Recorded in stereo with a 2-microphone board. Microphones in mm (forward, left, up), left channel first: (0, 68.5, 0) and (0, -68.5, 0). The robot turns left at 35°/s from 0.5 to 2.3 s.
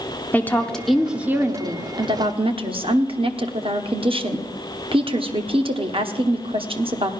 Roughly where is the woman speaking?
Ahead.